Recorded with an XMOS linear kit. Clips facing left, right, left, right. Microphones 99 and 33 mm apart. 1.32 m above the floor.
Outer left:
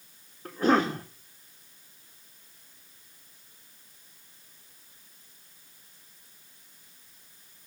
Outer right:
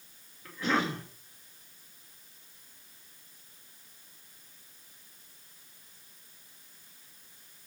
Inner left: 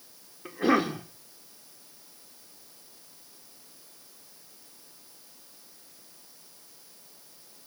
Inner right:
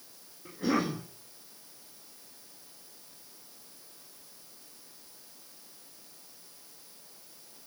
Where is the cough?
50° left (ahead or behind), 2.5 m.